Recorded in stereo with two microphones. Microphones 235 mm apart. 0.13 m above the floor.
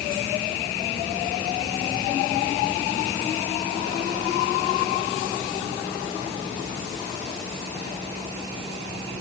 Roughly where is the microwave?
I don't hear a microwave.